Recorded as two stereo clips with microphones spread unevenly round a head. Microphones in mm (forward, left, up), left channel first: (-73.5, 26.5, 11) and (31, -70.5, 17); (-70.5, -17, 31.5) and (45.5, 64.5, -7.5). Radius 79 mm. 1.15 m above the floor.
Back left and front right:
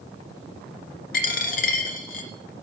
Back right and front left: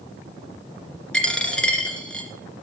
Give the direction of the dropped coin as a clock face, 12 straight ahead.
7 o'clock.